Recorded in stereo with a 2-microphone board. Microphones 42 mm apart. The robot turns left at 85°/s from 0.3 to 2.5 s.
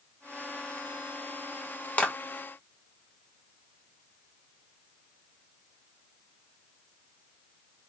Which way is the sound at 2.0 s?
30° left (ahead or behind).